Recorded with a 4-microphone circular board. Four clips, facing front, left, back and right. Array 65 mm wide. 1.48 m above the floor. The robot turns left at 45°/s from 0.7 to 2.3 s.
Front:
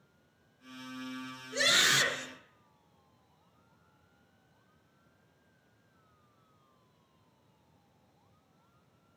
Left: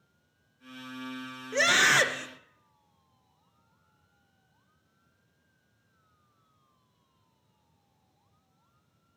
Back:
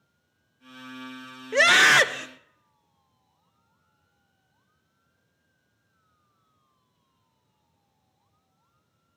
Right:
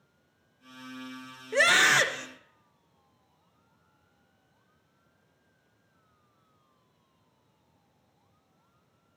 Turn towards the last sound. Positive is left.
turn(degrees=165)